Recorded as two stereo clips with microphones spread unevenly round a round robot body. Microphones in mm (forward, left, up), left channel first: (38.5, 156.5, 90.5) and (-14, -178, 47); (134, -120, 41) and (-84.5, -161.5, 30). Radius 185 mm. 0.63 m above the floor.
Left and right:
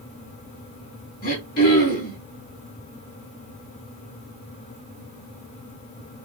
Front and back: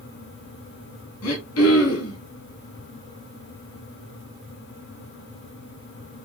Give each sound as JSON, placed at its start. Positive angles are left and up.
{"t": 1.2, "sound": "throat clearing", "azimuth_deg": 15, "distance_m": 3.5}